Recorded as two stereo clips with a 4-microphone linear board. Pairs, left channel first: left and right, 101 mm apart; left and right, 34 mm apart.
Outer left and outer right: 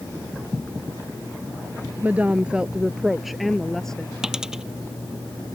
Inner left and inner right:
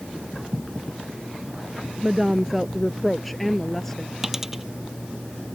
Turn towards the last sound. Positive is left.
turn(degrees=-5)  # may be behind; listen again after turning